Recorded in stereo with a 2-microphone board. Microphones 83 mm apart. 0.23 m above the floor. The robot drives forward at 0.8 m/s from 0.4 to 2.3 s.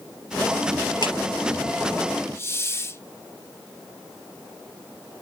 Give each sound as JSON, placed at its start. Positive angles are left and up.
{"t": 1.0, "sound": "a clap", "side_deg": 55, "distance_m": 3.0}
{"t": 2.3, "sound": "a hiss", "side_deg": 30, "distance_m": 0.7}